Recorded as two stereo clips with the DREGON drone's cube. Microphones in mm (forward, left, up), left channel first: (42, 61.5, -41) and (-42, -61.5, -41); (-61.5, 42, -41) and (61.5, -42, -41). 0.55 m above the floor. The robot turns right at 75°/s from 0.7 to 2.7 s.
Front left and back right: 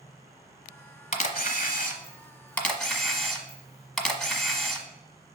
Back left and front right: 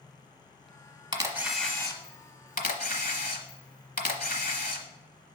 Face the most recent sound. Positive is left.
turn(degrees=145)